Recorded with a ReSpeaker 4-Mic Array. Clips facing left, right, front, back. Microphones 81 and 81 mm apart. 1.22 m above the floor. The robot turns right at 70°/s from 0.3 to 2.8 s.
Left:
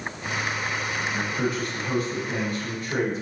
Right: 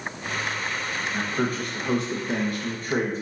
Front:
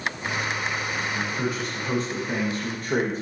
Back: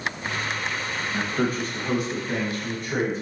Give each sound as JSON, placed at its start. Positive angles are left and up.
{"t": 1.1, "sound": "a man speaking", "azimuth_deg": -160, "distance_m": 1.7}